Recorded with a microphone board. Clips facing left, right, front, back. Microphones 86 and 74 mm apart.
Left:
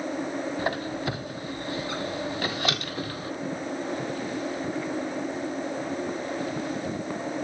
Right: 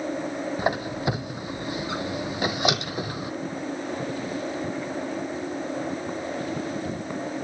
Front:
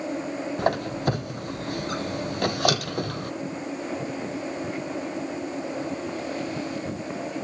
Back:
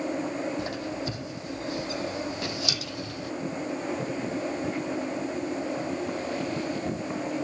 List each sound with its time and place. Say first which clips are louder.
0.6 s a squeak: right 3 dB, front 7 dB; 20° right, 0.7 m